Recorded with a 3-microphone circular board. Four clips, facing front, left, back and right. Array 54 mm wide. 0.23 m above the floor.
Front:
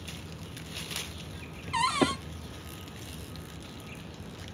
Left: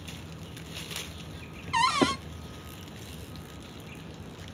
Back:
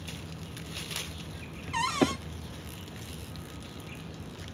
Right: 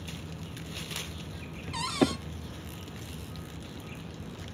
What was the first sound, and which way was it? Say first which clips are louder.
A cupboard door: left 4 dB, front 1 dB; 80° left.